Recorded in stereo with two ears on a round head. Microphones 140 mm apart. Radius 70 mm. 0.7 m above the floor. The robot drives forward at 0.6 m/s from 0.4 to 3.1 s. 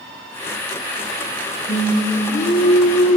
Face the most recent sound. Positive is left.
turn(degrees=55)  # may be behind; listen again after turning